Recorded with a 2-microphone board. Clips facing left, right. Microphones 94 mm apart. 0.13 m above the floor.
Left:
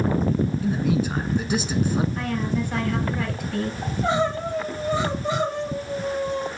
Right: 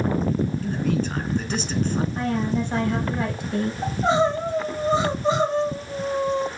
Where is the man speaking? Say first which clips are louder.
Left 2 dB; 10° left (ahead or behind), 1.0 m.